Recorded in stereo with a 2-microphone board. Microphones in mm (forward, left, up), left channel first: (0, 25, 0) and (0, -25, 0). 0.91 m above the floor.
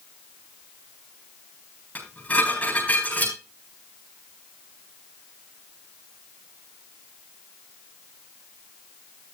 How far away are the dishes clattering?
About 9 m.